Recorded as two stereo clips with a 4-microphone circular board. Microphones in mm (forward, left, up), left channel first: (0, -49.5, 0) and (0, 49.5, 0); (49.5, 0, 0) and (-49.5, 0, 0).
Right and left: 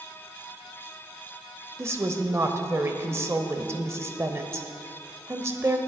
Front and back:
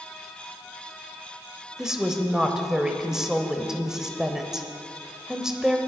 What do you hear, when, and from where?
1.8 s a woman speaking: 100° left, 1.0 m